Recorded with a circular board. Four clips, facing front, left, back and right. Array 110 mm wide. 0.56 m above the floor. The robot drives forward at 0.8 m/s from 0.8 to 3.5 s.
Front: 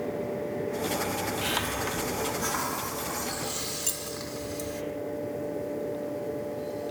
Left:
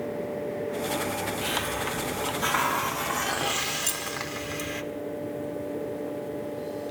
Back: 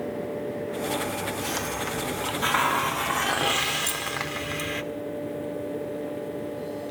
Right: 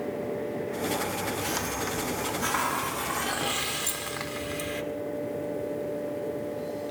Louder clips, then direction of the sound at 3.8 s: Left 1 dB, back 6 dB; 95° left.